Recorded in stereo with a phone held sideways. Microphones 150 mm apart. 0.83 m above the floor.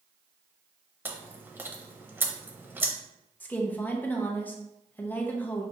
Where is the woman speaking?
10° left (ahead or behind), 0.7 m.